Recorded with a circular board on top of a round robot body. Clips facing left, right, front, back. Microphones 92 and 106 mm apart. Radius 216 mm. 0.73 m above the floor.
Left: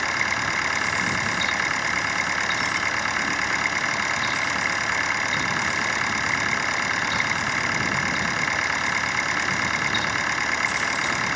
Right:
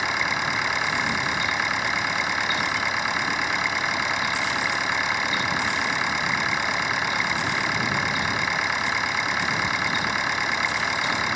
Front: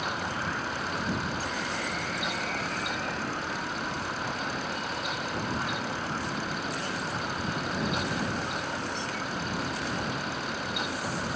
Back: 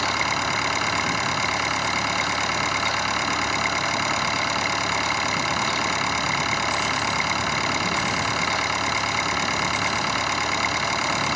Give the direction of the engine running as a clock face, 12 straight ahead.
6 o'clock.